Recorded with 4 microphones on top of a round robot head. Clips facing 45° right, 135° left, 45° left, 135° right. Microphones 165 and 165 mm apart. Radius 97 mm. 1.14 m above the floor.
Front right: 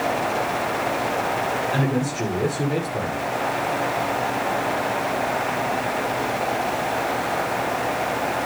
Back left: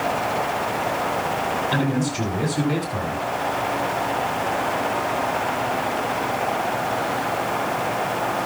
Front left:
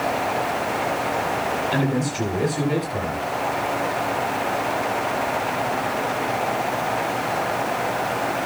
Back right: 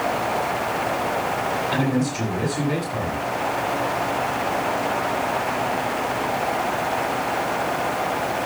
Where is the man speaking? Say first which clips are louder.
Back left 1 dB, back right 2 dB; 135° left, 9.5 m.